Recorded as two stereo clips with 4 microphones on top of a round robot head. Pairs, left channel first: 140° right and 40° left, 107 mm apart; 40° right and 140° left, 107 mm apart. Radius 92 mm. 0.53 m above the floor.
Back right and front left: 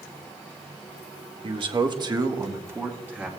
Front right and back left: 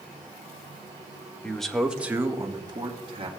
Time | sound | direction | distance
1.4 | a man speaking | 35° left | 1.4 m